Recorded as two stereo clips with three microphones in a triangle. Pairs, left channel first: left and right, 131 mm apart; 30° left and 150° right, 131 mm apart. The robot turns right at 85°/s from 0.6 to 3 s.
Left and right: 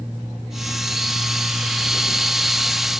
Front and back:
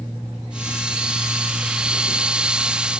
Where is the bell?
I don't hear a bell.